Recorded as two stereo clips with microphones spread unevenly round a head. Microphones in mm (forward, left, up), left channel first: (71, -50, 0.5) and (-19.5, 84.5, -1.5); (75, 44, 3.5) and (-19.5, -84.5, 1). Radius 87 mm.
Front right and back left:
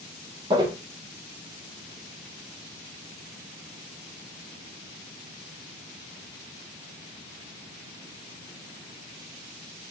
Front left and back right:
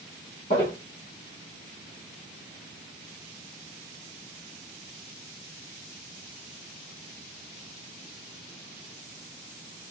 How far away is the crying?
No crying in this recording.